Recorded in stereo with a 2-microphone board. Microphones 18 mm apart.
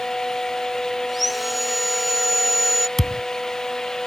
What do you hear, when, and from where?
1.1 s sawing: 5° right (ahead or behind)
3.0 s a thud: 15° left (ahead or behind)